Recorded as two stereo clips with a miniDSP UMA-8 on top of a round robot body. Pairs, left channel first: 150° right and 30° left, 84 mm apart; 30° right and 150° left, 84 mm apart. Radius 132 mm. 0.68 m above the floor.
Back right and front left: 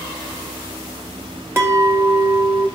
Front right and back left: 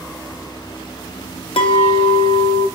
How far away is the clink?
About 1.1 m.